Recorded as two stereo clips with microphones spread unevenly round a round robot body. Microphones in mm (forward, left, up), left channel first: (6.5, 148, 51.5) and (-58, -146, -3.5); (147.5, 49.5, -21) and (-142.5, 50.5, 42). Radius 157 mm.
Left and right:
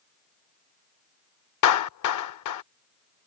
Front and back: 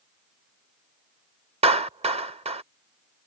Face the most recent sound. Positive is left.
turn(degrees=105)